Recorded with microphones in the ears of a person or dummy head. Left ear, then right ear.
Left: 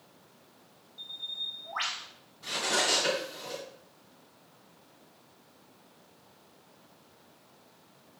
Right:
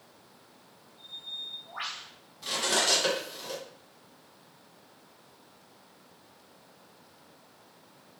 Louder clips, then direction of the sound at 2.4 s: Right 1 dB; 45° right (ahead or behind).